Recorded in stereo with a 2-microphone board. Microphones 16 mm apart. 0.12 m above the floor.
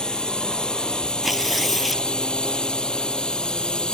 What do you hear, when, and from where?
0.0 s a drone: 55° left (ahead or behind); by 4.0 s 65° left (ahead or behind)
1.2 s tearing paper: 15° right (ahead or behind)